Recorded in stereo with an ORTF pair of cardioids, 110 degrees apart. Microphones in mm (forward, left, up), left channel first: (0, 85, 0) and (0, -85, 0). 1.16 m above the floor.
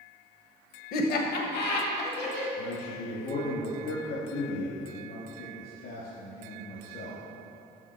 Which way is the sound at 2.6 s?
70° left.